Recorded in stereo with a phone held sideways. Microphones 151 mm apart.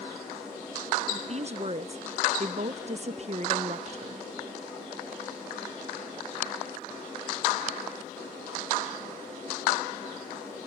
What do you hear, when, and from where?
1.1 s a woman speaking: 45° right (ahead or behind)